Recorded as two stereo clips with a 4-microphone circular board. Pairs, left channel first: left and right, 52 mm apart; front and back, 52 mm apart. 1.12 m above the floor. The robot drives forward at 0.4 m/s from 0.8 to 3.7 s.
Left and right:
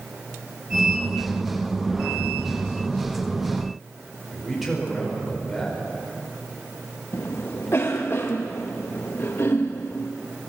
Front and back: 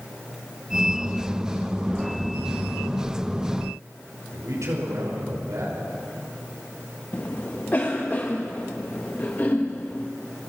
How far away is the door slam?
I don't hear a door slam.